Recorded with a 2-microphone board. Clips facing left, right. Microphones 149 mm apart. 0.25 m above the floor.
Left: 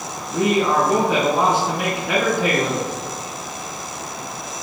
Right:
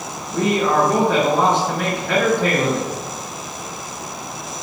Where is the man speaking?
5° left (ahead or behind), 3 m.